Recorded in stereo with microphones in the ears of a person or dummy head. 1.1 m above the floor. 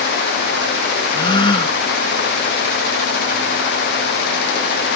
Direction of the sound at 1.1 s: 25° left (ahead or behind).